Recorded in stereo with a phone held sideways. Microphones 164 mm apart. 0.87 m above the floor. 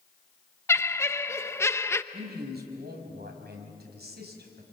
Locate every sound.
0.7 s laughter: 15° left (ahead or behind), 0.7 m
2.1 s a man speaking: 80° right, 5 m